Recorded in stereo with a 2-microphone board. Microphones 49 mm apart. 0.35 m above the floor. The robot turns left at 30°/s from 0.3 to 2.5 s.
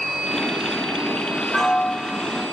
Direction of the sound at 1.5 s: Centre (ahead or behind).